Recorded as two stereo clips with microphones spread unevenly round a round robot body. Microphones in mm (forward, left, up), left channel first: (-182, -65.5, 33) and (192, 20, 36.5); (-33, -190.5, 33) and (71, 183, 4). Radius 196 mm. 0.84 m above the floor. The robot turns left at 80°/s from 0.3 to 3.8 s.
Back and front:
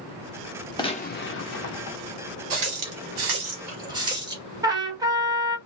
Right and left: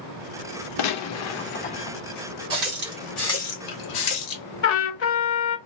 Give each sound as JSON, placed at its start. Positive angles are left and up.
{"t": 0.8, "sound": "a gunshot", "azimuth_deg": -95, "distance_m": 0.7}
{"t": 2.5, "sound": "a running tap", "azimuth_deg": 40, "distance_m": 1.3}
{"t": 4.6, "sound": "a trumpet", "azimuth_deg": -65, "distance_m": 0.9}